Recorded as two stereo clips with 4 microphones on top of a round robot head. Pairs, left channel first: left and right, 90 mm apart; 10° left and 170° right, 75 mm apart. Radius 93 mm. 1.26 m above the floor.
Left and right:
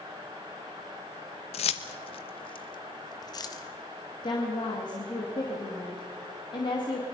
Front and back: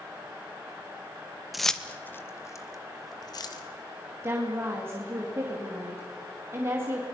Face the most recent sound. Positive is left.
turn(degrees=135)